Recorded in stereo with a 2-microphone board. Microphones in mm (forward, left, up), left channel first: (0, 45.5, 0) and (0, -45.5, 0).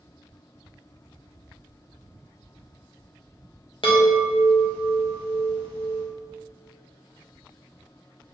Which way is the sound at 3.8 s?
75° left (ahead or behind).